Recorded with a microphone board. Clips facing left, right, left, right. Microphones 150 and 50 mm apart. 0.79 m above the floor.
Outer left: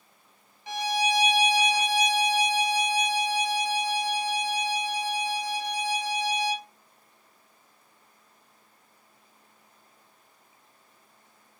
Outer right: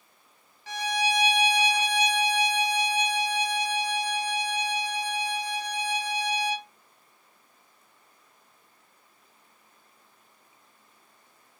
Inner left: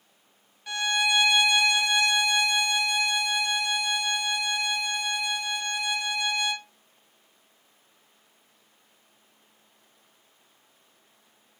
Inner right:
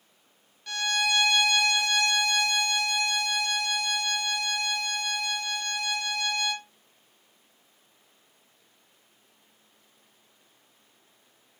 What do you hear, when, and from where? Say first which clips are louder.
0.7 s a violin: outer left 1 dB, inner left 2 dB; 15° left (ahead or behind), 1.0 m